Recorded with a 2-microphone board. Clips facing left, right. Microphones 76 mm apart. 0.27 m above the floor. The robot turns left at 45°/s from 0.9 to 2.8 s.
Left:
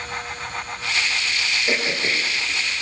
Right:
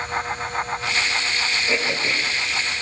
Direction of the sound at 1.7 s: 35° left (ahead or behind).